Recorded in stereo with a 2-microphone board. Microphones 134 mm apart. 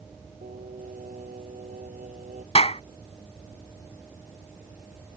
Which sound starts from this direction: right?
Singing, at 0.4 s.